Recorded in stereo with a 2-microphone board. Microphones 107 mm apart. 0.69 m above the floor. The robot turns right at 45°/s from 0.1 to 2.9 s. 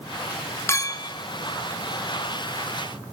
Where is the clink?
25° left (ahead or behind), 0.6 m; by 1.1 s 45° left (ahead or behind), 0.6 m.